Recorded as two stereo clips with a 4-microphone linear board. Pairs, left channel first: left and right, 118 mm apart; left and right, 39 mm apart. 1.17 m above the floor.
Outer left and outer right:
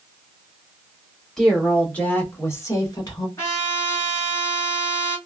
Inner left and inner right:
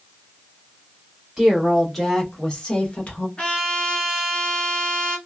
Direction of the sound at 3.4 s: 25° left (ahead or behind).